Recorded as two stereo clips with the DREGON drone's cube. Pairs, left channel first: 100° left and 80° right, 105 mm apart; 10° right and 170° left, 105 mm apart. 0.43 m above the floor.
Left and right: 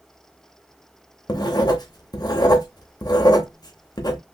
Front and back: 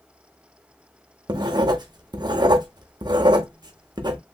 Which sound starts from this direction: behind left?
Writing, at 1.3 s.